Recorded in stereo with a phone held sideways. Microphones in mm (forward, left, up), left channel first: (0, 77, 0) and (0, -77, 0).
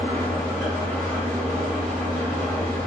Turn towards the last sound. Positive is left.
turn(degrees=15)  # may be behind; listen again after turning